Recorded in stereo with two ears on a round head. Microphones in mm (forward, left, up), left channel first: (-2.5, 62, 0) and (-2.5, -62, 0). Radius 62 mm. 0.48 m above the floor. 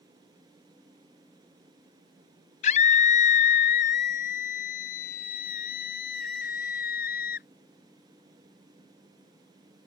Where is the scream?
55° left (ahead or behind); by 7.5 s 70° left (ahead or behind).